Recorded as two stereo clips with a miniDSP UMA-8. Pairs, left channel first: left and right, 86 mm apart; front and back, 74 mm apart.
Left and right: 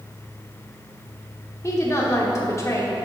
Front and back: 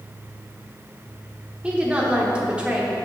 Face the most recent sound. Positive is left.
turn(degrees=115)